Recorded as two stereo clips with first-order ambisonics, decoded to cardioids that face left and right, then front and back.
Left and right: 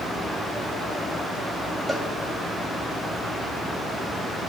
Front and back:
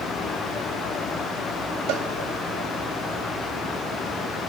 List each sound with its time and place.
1.9 s a cowbell: 175° right, 2.5 m